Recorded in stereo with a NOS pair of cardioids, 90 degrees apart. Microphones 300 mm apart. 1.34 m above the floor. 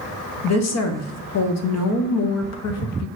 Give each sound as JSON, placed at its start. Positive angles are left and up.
{"t": 0.4, "sound": "a woman speaking", "azimuth_deg": 60, "distance_m": 0.7}